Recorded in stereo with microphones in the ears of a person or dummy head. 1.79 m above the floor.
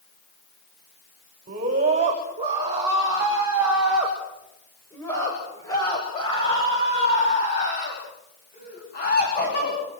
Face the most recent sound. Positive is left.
turn(degrees=45)  # may be behind; listen again after turning